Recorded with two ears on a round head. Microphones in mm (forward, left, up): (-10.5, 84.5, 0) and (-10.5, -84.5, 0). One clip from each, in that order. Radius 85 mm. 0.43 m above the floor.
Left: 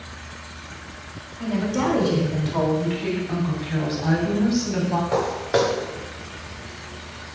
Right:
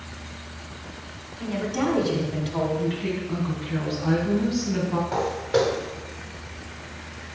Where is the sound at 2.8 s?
25° left (ahead or behind), 3 m.